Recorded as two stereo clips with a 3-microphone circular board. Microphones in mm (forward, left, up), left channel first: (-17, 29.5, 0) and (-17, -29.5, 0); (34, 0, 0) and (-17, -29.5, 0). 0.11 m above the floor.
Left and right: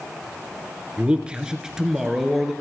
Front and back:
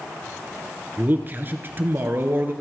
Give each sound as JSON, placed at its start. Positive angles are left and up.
{"t": 1.0, "sound": "a man speaking", "azimuth_deg": -140, "distance_m": 1.5}